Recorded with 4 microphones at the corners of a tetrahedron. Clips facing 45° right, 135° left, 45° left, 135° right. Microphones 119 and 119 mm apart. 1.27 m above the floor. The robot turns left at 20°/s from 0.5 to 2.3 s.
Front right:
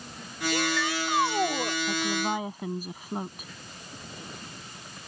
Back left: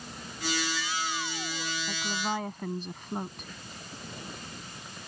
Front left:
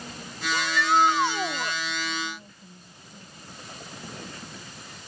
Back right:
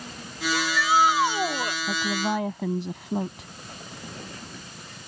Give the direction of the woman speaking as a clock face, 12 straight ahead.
4 o'clock.